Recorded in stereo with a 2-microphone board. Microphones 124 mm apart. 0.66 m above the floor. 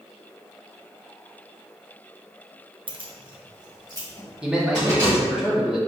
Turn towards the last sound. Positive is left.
turn(degrees=-5)  # may be behind; listen again after turning